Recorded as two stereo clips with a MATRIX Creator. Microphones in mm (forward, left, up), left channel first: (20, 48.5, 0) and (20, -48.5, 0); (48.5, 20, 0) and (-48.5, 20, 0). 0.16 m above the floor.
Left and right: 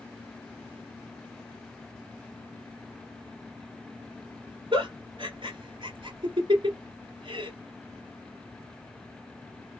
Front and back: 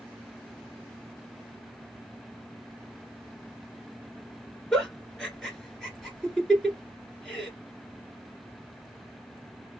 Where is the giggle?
85° right, 1.8 m.